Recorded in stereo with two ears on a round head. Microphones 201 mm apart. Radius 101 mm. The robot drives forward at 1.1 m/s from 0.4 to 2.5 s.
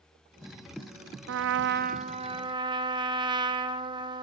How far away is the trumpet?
About 0.6 m.